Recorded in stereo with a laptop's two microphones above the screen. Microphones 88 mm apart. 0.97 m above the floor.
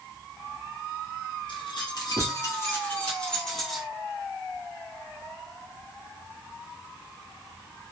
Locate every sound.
1.5 s keys jangling: 70° left (ahead or behind), 0.9 m; by 3.9 s centre (ahead or behind), 1.3 m